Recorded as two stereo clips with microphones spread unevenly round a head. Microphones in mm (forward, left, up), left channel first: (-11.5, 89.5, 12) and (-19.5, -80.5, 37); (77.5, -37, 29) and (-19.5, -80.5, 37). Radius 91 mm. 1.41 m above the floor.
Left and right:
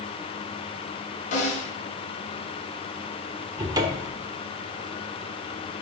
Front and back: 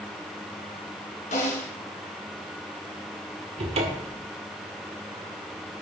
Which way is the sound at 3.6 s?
155° right.